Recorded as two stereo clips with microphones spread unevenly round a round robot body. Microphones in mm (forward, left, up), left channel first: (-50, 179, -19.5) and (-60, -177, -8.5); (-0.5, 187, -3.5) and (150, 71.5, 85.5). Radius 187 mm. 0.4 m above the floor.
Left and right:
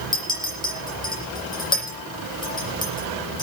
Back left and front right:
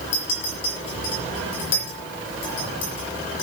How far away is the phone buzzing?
I don't hear a phone buzzing.